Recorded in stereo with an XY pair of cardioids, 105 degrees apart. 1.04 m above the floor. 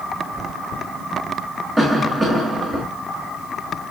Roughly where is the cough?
Ahead.